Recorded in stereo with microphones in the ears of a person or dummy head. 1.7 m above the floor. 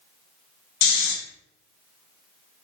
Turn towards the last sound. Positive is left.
turn(degrees=85)